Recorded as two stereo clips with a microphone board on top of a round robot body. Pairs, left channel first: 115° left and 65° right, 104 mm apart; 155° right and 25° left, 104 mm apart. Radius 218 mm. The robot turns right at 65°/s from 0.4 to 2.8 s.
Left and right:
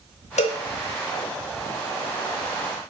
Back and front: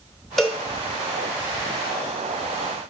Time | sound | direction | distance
0.4 | a cowbell | 115° left | 0.7 m